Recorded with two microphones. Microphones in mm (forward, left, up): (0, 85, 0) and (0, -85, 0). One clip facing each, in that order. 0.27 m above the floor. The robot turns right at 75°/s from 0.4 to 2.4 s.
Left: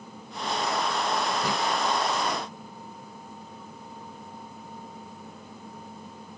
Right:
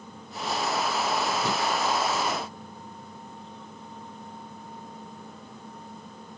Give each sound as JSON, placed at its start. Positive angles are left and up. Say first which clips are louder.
{"t": 1.4, "sound": "breathing", "louder": "even", "side_deg": 10, "distance_m": 0.7}